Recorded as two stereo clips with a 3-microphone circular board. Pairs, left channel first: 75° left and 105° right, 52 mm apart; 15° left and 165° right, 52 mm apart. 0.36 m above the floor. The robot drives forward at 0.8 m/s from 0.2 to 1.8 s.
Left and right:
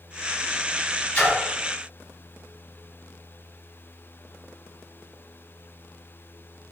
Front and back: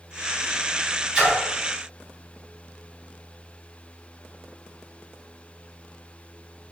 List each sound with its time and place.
1.1 s a splash: 135° left, 2.0 m